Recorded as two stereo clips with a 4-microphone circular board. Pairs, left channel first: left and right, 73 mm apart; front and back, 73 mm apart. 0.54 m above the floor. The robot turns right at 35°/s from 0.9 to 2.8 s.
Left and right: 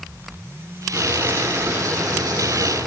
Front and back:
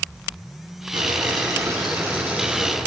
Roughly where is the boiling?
Behind.